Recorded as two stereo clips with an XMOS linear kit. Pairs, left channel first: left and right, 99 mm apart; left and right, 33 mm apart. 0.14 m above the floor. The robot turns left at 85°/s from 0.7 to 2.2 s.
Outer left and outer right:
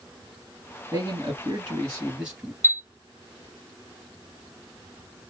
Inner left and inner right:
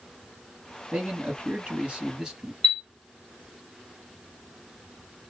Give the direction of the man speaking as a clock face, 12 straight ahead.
2 o'clock.